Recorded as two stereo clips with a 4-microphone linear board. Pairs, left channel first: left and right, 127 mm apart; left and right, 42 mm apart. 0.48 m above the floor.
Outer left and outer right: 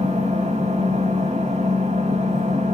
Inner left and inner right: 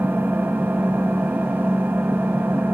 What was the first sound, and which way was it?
An engine running, 65° right (ahead or behind).